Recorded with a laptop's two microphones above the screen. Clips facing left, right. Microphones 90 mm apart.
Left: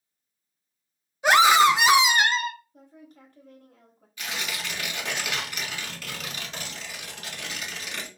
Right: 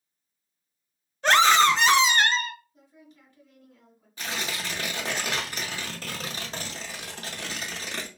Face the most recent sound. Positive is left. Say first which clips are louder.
# right 1 dB
turn(degrees=-35)  # may be behind; listen again after turning